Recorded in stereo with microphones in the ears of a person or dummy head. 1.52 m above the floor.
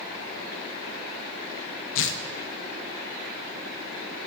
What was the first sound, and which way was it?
Tearing paper, 60° left (ahead or behind).